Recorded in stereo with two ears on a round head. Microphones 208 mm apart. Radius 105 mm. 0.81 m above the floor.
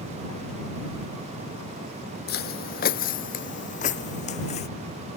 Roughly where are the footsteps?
Left.